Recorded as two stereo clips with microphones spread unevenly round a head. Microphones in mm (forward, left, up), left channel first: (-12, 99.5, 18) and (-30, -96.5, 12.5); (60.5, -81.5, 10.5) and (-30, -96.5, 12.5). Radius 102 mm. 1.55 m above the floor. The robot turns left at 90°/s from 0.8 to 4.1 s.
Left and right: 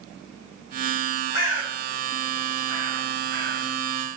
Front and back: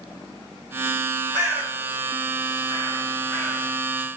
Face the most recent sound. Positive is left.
turn(degrees=-135)